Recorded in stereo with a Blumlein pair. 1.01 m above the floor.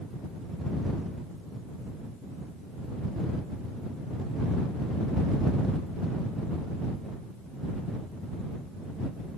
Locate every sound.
Only background noise.